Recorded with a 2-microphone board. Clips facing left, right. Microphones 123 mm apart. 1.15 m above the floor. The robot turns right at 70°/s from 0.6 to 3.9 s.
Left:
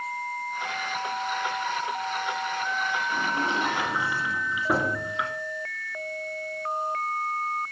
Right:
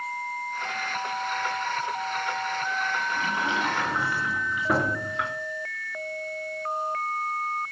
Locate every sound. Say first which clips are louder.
3.1 s a sliding door: left 1 dB; 120° left, 3 m; by 5.3 s 175° left, 3 m